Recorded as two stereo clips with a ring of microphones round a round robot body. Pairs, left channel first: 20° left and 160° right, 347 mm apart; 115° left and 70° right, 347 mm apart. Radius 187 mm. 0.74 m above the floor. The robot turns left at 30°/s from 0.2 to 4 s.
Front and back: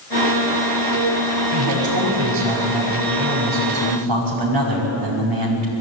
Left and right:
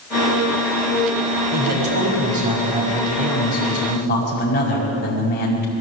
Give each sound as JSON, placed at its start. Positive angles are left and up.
{"t": 1.5, "sound": "a man speaking", "azimuth_deg": -105, "distance_m": 5.0}